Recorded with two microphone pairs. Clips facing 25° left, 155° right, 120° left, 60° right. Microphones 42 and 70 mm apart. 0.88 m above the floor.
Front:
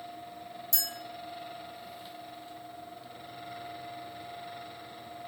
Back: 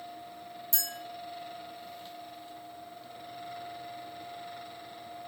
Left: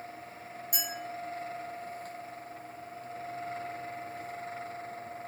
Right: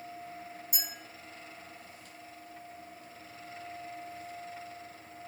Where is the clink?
150° left, 1.1 m.